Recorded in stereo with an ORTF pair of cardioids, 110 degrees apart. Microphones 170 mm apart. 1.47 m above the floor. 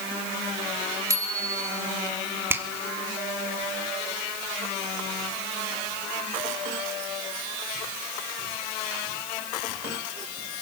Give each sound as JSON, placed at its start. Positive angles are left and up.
{"t": 1.1, "sound": "a bicycle bell", "azimuth_deg": -20, "distance_m": 6.0}
{"t": 2.5, "sound": "a finger snap", "azimuth_deg": -15, "distance_m": 3.0}